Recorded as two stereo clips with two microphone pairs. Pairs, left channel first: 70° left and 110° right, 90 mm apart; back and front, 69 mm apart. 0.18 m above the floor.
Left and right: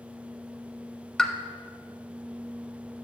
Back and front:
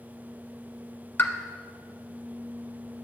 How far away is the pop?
About 0.6 m.